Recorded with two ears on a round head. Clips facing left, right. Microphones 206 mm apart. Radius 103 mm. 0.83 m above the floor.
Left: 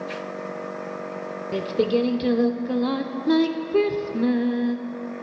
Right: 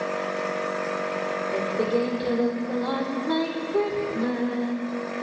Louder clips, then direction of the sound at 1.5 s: Left 4 dB; 35° left (ahead or behind).